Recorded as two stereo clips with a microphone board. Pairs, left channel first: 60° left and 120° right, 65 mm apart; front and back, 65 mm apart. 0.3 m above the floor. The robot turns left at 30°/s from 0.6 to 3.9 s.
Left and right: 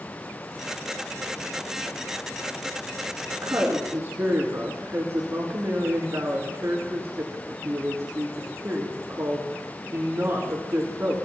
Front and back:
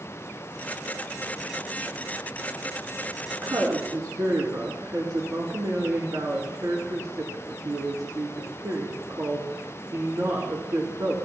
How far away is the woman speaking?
About 4 m.